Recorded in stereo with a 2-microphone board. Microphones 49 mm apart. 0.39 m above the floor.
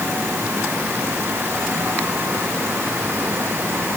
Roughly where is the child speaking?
No child speaking in this recording.